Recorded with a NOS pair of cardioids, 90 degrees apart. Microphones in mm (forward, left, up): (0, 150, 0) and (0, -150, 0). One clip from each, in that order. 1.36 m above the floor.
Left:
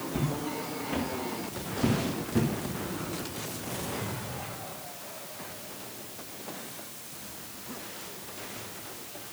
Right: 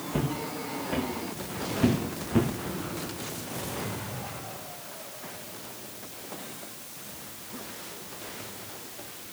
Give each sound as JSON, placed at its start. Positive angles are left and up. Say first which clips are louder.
{"t": 0.1, "sound": "footsteps", "louder": "right 3 dB", "azimuth_deg": -30, "distance_m": 7.5}